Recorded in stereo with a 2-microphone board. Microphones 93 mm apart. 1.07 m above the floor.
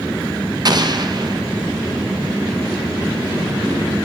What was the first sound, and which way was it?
An explosion, 45° right (ahead or behind).